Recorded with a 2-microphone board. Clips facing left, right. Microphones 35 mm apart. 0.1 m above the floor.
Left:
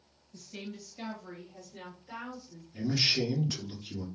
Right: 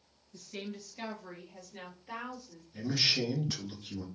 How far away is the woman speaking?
About 1.8 m.